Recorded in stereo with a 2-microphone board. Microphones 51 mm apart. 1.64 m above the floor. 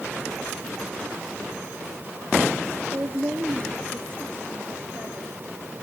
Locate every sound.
2.9 s a woman speaking: 30° right (ahead or behind), 1.8 m; by 5.4 s 35° right (ahead or behind), 3 m